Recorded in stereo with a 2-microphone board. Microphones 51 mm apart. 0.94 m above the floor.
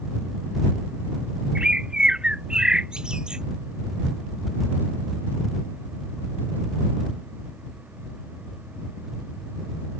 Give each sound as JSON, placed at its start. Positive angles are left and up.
{"t": 1.6, "sound": "a bird", "side_deg": -15}